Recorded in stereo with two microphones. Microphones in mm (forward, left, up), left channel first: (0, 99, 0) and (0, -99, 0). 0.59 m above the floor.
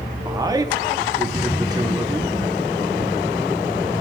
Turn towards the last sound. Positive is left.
turn(degrees=-20)  # may be behind; listen again after turning